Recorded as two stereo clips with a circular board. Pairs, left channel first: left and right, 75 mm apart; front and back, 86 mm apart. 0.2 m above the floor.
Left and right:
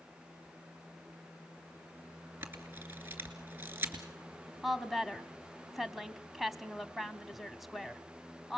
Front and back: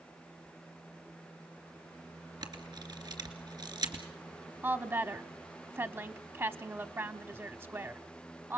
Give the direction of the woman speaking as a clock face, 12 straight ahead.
6 o'clock.